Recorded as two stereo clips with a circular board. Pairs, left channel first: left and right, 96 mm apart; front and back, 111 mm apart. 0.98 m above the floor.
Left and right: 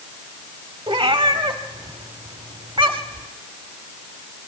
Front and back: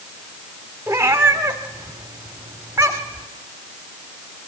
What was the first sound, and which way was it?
A cat meowing, 115° right.